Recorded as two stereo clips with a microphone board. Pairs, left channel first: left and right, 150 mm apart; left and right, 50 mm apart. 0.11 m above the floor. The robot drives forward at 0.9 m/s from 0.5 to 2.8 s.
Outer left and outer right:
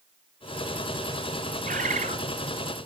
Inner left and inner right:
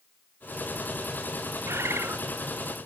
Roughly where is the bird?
Right.